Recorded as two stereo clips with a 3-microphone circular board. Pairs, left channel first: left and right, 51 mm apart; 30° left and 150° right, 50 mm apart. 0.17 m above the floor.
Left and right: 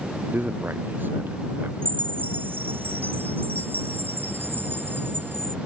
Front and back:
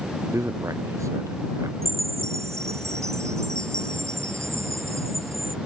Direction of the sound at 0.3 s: 140° right.